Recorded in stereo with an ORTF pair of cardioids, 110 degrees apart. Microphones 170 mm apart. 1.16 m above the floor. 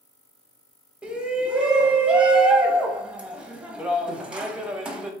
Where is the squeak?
I don't hear a squeak.